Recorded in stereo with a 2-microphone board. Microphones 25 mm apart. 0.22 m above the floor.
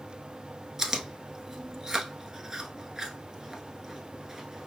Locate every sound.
0.8 s chewing: 20° right (ahead or behind), 0.7 m